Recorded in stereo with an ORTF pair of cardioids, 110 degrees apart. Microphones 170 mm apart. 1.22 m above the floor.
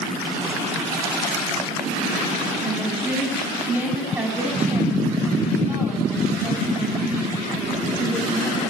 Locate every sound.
2.6 s a woman speaking: 10° right, 7 m